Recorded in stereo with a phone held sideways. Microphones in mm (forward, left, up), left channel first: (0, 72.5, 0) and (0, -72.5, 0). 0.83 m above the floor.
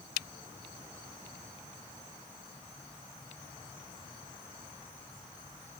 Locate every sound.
Only background noise.